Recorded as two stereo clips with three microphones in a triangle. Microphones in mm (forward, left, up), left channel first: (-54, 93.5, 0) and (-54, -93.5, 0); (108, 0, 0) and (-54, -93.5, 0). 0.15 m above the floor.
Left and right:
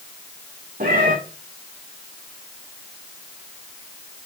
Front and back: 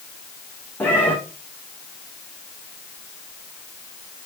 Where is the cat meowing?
50° right, 4 m.